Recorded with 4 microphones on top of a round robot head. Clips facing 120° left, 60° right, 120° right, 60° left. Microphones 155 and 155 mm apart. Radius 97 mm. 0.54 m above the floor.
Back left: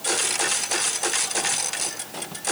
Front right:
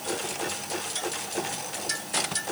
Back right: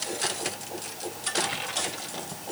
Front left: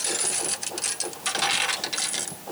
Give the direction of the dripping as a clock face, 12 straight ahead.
No dripping in this recording.